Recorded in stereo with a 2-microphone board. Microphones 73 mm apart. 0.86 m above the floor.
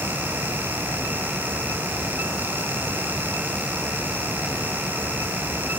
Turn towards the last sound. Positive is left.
No sound to turn to.